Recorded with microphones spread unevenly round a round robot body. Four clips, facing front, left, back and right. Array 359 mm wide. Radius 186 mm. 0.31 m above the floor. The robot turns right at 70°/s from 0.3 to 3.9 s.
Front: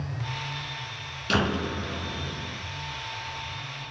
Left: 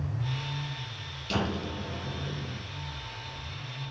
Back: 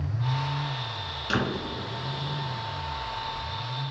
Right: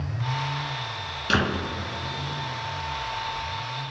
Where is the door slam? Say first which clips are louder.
Right 6 dB, front 3 dB; 60° right, 3.5 m; by 2.6 s 35° left, 3.5 m.